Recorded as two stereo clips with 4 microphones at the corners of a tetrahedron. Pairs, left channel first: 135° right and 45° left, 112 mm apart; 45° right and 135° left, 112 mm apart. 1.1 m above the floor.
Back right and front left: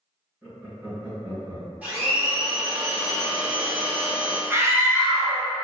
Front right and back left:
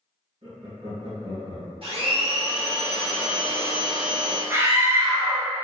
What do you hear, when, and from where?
0.4 s laughter: 115° left, 1.7 m
1.8 s a blender: 115° left, 1.0 m
4.5 s a scream: 95° left, 0.8 m